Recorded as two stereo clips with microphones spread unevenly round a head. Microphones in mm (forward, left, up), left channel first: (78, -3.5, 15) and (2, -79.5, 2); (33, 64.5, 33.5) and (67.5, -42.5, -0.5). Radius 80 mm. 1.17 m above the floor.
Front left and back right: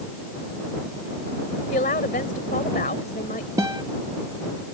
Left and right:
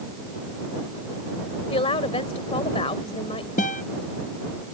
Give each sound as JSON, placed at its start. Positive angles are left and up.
{"t": 1.7, "sound": "a woman speaking", "azimuth_deg": 75}
{"t": 3.6, "sound": "a guitar", "azimuth_deg": 150}